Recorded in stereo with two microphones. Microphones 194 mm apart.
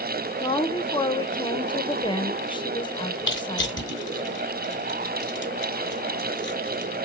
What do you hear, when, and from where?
0.4 s a woman speaking: 25° left (ahead or behind), 0.8 m
3.3 s crushing: 20° left (ahead or behind), 3 m